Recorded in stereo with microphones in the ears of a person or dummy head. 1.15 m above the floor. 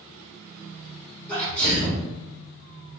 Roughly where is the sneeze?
Centre.